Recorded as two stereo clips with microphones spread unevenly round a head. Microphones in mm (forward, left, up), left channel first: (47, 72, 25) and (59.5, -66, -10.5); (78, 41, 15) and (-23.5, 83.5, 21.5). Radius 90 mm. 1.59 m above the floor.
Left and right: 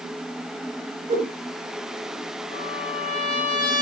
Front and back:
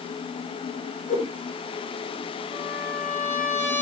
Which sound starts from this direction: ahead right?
A whoosh, at 1.1 s.